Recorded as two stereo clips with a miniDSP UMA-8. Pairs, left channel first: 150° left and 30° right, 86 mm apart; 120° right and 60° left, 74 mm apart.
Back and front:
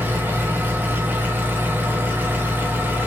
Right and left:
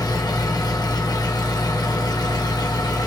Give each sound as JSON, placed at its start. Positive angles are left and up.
{"t": 0.0, "sound": "an engine running", "azimuth_deg": -95, "distance_m": 0.8}